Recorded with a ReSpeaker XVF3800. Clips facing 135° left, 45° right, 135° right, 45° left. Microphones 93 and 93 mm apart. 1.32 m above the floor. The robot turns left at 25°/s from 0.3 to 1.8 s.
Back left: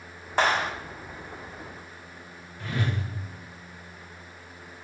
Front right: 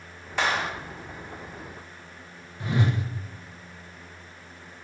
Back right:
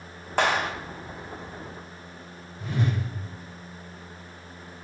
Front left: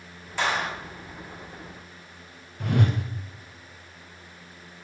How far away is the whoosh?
About 0.6 m.